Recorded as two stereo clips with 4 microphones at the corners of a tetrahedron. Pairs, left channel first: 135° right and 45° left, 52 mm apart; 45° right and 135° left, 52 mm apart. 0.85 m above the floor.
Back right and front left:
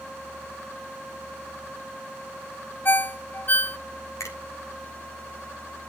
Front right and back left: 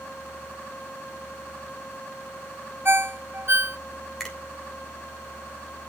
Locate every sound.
2.9 s a ringtone: 175° left, 0.5 m
4.2 s a finger snap: 130° right, 3 m